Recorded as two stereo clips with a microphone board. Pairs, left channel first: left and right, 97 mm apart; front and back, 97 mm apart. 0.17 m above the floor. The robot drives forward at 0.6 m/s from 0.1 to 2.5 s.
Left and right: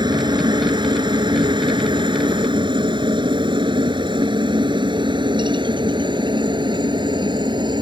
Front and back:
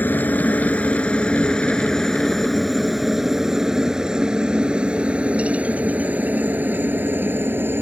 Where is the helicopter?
65° right; by 7.8 s 115° right.